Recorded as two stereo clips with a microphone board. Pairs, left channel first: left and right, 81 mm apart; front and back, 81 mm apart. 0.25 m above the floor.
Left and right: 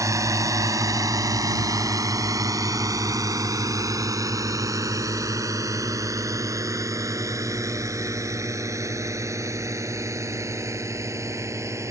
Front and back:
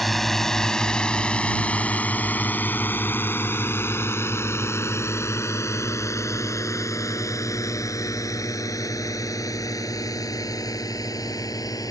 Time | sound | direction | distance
0.0 | a drone | 85° right | ?